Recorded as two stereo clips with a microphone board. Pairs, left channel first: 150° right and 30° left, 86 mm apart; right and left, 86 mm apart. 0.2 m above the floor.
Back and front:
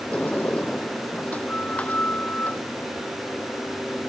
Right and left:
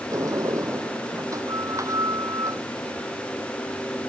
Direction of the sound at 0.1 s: 140° left.